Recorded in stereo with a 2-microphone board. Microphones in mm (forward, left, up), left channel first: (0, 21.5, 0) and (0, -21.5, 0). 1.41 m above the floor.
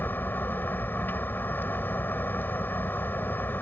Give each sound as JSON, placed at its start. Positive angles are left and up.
{"t": 0.0, "sound": "a vehicle", "side_deg": 55}